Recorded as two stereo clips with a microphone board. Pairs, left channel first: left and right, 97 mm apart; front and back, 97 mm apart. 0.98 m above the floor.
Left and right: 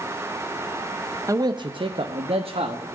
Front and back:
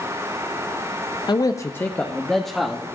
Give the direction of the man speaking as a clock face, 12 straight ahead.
1 o'clock.